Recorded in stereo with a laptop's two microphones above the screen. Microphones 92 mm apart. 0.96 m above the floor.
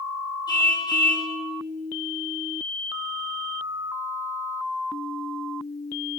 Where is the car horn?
45° left (ahead or behind), 6.5 m.